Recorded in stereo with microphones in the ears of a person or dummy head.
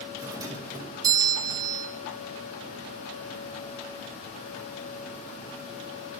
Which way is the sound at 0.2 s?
20° right (ahead or behind).